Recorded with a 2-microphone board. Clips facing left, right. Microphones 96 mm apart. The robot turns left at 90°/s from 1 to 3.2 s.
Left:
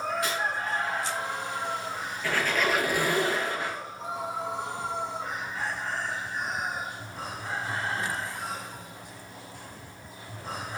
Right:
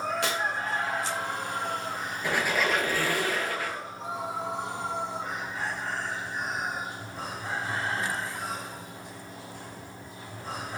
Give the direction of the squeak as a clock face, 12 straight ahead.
5 o'clock.